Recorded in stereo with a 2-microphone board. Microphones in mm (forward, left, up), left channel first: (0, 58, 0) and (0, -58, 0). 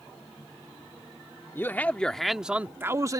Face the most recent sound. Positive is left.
turn(degrees=-30)  # may be behind; listen again after turning